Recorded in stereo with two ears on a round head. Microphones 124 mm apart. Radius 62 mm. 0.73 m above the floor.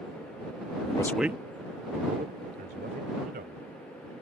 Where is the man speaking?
45° left (ahead or behind); by 3.7 s 70° right (ahead or behind).